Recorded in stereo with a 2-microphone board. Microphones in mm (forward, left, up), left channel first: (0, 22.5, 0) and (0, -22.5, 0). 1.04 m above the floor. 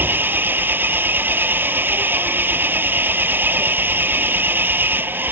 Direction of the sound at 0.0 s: 45° right (ahead or behind).